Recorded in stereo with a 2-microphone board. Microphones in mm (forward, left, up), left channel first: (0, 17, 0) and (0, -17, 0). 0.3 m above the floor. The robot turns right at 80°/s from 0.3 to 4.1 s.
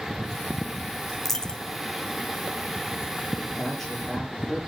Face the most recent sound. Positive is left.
turn(degrees=-165)